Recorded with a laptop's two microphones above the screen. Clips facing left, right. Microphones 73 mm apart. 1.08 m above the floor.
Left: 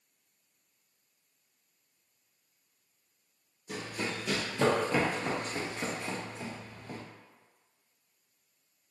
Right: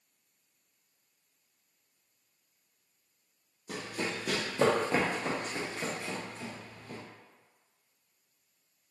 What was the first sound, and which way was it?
Running footsteps, 55° right (ahead or behind).